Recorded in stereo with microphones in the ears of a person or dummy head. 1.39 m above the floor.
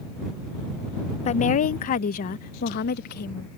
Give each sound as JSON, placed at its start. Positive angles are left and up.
{"t": 1.2, "sound": "a woman speaking", "side_deg": 35}